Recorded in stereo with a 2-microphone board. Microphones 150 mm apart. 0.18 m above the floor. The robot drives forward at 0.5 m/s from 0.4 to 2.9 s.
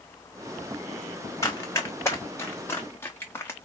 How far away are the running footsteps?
About 1.7 m.